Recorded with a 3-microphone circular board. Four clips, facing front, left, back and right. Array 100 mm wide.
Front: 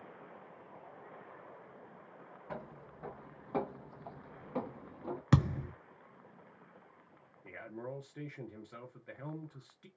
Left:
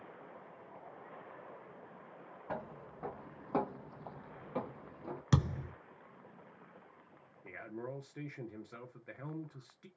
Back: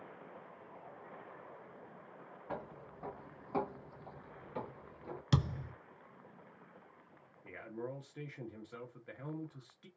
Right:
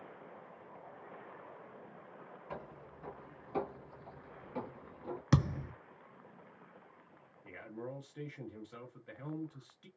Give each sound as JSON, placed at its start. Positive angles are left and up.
{"t": 2.5, "sound": "footsteps", "azimuth_deg": 95, "distance_m": 1.5}
{"t": 5.3, "sound": "a thud", "azimuth_deg": -25, "distance_m": 0.5}
{"t": 7.4, "sound": "a man speaking", "azimuth_deg": 75, "distance_m": 1.0}